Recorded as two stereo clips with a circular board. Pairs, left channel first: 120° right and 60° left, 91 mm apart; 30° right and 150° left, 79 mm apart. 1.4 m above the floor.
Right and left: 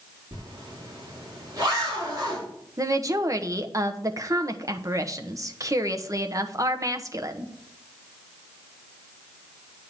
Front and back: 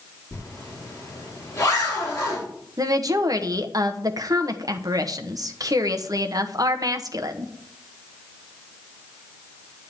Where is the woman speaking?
115° left, 1.0 m.